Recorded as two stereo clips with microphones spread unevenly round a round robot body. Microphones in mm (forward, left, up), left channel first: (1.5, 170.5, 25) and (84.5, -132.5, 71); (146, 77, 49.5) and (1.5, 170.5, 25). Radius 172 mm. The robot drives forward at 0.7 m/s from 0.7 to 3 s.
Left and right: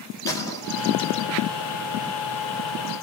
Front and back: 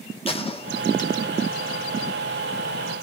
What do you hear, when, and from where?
0.3 s a gunshot: 30° left, 1.0 m; by 1.3 s 50° left, 0.7 m